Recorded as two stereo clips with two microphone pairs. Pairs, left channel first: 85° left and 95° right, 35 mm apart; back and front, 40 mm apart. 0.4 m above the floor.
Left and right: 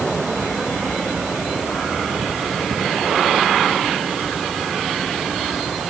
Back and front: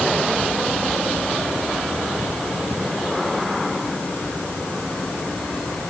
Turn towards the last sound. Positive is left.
No sound to turn to.